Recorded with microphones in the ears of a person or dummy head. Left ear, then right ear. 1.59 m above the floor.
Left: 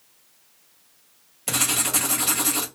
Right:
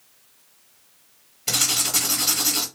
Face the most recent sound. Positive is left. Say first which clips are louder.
# right 2 dB
turn(degrees=15)  # may be behind; listen again after turning